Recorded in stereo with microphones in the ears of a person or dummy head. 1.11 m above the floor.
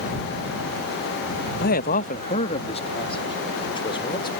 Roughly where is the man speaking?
Left.